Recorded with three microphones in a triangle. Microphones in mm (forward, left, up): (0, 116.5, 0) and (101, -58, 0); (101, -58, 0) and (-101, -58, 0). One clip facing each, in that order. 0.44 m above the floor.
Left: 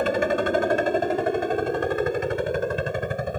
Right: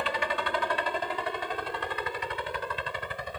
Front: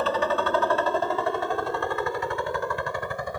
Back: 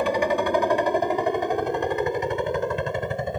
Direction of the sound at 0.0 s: 110° left.